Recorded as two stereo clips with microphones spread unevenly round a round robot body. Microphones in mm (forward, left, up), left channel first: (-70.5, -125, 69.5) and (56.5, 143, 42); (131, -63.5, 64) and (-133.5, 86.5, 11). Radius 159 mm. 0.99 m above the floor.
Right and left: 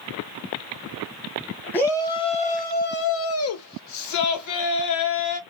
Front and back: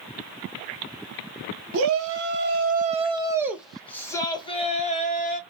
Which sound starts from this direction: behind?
A shout, at 1.7 s.